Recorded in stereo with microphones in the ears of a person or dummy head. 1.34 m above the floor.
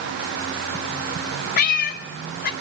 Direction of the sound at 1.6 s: 50° left (ahead or behind).